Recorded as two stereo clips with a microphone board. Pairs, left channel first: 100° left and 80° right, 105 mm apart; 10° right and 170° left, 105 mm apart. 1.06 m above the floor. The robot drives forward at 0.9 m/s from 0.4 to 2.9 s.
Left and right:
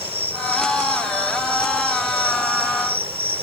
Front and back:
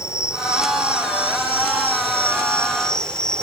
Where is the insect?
70° right; by 3.4 s 95° right.